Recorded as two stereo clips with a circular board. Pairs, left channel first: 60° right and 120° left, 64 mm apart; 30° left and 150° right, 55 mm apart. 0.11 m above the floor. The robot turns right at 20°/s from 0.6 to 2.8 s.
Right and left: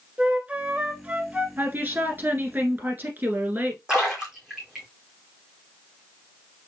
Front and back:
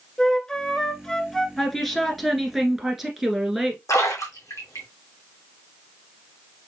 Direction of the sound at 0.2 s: 85° left.